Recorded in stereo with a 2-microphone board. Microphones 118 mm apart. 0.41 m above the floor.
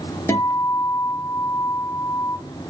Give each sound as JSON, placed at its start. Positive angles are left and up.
{"t": 0.3, "sound": "a guitar", "side_deg": 25, "distance_m": 0.9}